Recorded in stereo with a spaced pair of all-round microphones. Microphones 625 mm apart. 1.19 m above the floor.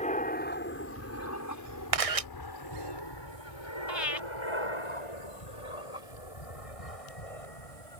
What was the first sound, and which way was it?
An aircraft, 10° left (ahead or behind).